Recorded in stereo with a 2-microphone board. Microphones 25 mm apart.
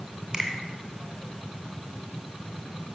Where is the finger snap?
30° right (ahead or behind), 2.5 m.